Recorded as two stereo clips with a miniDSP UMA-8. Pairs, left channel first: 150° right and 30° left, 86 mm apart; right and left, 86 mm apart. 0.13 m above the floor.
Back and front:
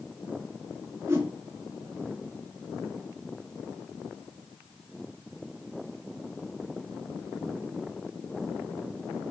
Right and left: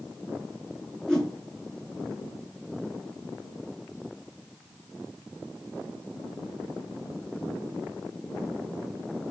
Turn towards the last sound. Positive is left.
turn(degrees=-10)